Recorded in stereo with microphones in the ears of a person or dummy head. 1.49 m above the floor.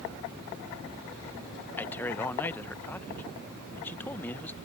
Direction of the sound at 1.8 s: 15° left (ahead or behind).